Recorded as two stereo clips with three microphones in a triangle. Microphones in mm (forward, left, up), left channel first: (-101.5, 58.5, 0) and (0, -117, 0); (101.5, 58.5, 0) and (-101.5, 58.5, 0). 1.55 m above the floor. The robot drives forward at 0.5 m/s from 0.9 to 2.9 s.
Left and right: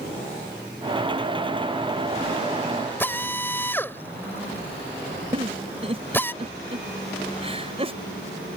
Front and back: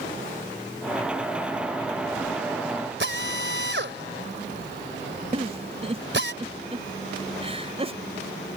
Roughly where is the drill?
Behind.